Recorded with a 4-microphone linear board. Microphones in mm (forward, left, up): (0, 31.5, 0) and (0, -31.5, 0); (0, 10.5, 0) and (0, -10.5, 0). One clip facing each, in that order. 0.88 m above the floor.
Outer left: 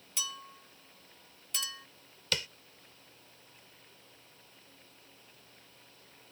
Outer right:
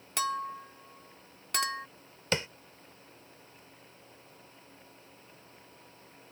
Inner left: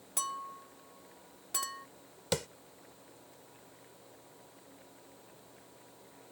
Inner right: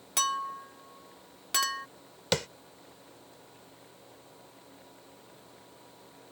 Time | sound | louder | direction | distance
0.2 | a clink | outer right 12 dB, inner right 9 dB | 60° right (ahead or behind) | ?
2.3 | tapping | outer right 5 dB, inner right 5 dB | 30° right (ahead or behind) | ?